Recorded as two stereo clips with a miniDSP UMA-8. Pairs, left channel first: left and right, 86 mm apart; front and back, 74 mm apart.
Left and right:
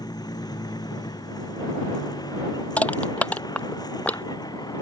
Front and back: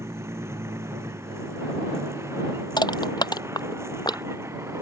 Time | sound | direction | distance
0.0 | a vehicle | 125° left | ?
2.8 | crushing | 15° left | ?